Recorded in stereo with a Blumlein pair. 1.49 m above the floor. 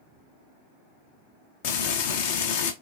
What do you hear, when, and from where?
1.6 s frying: 45° left, 0.6 m